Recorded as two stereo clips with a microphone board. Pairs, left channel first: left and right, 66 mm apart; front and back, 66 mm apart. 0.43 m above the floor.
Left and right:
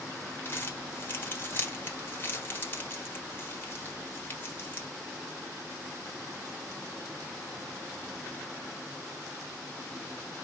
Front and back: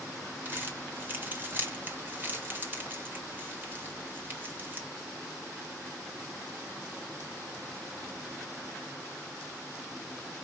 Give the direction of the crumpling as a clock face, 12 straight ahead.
8 o'clock.